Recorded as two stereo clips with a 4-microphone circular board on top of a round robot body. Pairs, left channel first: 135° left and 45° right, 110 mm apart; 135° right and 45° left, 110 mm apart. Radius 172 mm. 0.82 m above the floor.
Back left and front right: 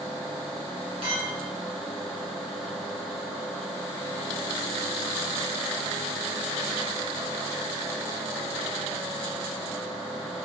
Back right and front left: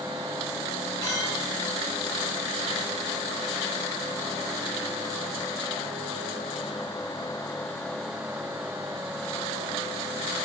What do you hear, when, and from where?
1.0 s a clink: 80° right, 4 m